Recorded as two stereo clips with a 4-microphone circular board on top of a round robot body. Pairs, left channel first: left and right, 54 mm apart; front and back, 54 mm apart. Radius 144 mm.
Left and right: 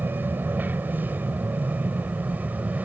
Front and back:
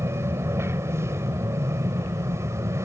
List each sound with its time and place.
0.0 s an aircraft: 145° right; by 2.9 s 155° right